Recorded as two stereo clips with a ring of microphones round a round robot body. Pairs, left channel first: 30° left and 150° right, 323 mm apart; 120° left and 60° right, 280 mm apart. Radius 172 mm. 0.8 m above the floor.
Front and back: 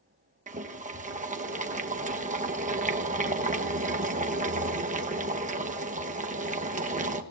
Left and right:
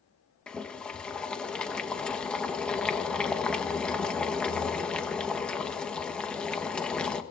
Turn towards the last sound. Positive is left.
turn(degrees=-160)